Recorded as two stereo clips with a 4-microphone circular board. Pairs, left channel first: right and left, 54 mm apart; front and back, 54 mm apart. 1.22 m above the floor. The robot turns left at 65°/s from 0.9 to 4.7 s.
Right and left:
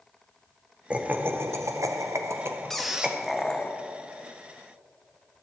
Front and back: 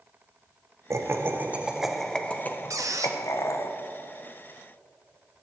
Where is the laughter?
160° left, 0.7 m; by 3.7 s 25° right, 0.7 m.